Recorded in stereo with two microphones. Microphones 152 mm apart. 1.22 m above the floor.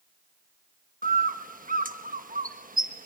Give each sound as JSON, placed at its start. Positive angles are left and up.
{"t": 1.0, "sound": "a bird", "side_deg": -65, "distance_m": 1.3}